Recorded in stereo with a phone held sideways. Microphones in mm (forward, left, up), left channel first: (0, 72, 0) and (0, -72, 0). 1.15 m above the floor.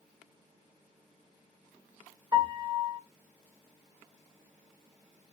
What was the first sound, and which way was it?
A piano, 30° right (ahead or behind).